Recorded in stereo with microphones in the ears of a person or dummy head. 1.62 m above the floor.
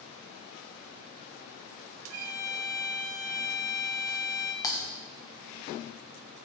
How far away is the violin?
About 1.0 m.